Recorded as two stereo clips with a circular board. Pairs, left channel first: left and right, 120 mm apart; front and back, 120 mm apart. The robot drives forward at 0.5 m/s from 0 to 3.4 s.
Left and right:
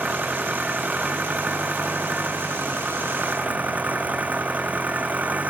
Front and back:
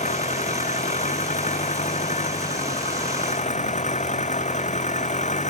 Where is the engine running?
10° right.